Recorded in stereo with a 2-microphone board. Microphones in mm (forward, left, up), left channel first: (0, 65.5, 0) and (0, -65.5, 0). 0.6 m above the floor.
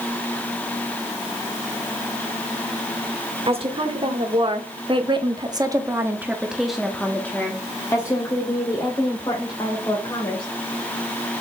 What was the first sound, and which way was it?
A woman speaking, 45° right (ahead or behind).